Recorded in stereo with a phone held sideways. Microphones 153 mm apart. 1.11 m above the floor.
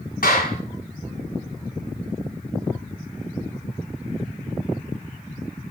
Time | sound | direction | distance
0.2 | a clap | 65° left (ahead or behind) | 8.5 m